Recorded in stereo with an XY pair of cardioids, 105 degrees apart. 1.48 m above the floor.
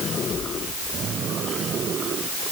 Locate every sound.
Only background noise.